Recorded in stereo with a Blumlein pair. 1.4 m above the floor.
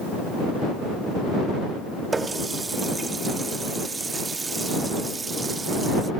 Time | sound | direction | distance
2.1 | a running tap | 15° right | ?